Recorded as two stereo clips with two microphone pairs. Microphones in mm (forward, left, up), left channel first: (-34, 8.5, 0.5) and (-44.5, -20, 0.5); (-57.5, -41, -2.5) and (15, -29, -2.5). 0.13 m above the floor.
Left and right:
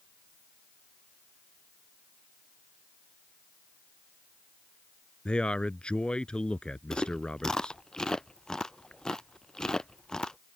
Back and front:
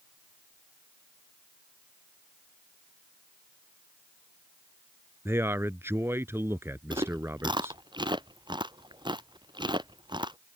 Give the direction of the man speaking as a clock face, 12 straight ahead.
11 o'clock.